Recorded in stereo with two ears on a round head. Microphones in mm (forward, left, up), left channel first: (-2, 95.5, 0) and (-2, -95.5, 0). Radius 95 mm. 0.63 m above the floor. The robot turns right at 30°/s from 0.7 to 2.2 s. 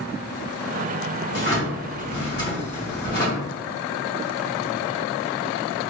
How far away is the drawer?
About 1.7 m.